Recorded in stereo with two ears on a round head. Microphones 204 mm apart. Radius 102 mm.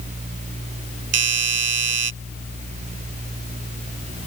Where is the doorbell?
70° right (ahead or behind).